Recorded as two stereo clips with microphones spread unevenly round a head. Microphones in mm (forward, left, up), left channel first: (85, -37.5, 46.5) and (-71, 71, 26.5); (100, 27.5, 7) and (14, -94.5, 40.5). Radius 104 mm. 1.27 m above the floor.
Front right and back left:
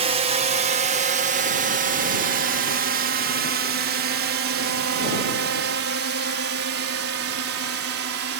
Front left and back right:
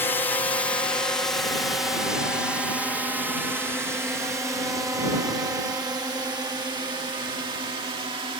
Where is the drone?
110° left; by 8.4 s 170° left.